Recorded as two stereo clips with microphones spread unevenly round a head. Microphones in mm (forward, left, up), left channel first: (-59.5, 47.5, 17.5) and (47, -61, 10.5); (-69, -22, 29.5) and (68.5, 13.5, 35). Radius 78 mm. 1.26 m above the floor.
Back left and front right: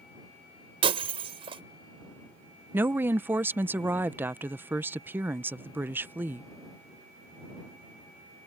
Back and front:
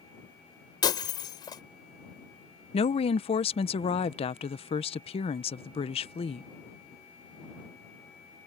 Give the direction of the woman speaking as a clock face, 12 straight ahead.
4 o'clock.